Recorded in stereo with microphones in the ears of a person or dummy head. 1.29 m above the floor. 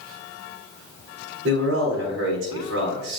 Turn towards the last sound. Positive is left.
turn(degrees=-80)